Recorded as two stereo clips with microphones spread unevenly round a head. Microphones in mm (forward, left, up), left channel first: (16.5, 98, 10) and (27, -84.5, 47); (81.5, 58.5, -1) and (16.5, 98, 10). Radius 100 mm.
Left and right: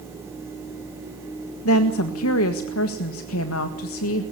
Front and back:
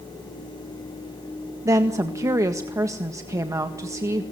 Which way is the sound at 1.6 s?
100° left.